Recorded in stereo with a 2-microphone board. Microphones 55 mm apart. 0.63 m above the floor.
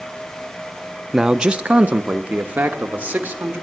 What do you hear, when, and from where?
1.1 s a man speaking: 10° right (ahead or behind), 0.5 m; by 3.6 s 30° right (ahead or behind), 1.6 m